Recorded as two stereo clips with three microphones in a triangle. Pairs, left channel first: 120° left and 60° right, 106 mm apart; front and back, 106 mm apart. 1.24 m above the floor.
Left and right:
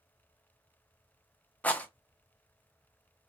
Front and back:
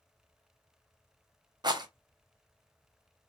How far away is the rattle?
About 0.6 m.